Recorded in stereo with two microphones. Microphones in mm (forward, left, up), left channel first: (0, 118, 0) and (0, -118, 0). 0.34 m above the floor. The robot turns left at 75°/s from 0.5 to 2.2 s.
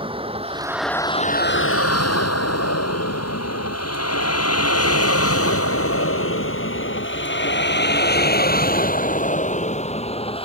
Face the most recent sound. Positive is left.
turn(degrees=25)  # may be behind; listen again after turning